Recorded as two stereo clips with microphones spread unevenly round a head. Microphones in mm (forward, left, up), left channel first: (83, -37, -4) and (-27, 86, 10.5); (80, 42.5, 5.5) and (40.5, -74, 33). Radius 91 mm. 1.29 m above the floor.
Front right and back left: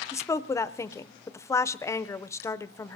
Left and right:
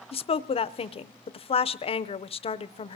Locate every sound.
0.1 s a woman speaking: 25° left, 0.6 m